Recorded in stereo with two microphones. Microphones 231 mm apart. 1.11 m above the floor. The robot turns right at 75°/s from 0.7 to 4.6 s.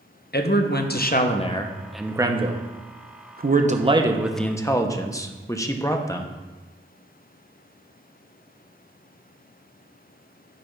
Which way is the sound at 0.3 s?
85° left.